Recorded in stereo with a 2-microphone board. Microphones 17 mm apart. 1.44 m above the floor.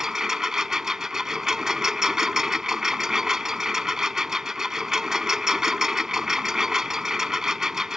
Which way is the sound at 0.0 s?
35° right (ahead or behind).